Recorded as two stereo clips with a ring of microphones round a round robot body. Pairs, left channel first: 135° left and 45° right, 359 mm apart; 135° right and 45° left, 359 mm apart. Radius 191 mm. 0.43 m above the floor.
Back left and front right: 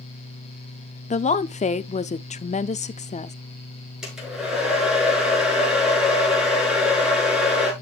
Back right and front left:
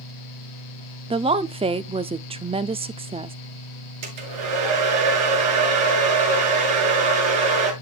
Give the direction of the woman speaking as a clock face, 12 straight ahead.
9 o'clock.